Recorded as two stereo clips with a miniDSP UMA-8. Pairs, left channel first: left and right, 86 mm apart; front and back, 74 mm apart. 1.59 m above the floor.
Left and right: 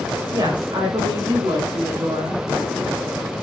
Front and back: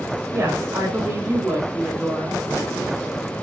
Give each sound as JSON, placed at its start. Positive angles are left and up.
{"t": 0.3, "sound": "a woman speaking", "azimuth_deg": -130, "distance_m": 8.0}